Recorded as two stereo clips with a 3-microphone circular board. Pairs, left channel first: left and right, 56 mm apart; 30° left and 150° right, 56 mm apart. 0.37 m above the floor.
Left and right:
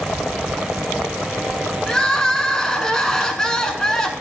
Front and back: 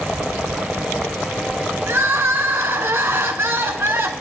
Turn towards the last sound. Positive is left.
turn(degrees=170)